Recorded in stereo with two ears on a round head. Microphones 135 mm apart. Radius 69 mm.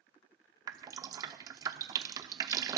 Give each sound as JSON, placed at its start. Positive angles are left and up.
{"t": 0.7, "sound": "dripping", "side_deg": -25, "distance_m": 0.8}